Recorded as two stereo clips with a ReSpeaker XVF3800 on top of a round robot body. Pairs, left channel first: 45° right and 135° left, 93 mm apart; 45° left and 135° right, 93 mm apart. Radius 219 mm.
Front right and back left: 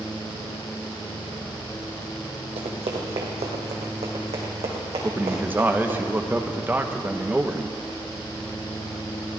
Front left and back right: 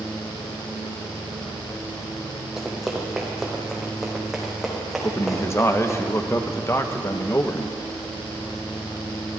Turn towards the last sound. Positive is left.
turn(degrees=80)